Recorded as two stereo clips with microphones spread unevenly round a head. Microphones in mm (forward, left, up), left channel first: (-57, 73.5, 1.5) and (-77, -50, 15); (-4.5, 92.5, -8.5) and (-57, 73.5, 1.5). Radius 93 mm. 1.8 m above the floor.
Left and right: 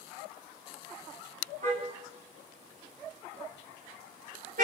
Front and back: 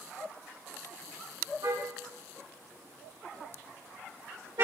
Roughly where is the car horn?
Behind right.